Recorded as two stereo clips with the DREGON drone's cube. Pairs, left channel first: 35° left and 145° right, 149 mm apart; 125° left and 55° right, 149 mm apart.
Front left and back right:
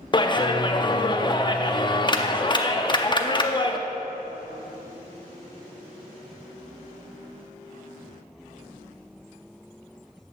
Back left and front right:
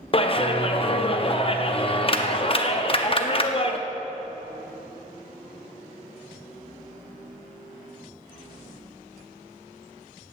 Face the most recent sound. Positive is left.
turn(degrees=85)